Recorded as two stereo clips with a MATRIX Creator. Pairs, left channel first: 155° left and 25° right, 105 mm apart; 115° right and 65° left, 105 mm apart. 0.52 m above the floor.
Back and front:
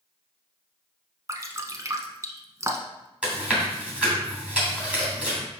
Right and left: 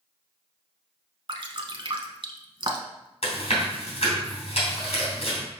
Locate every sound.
1.3 s dripping: 35° left, 0.8 m
3.2 s chewing: 100° right, 2.5 m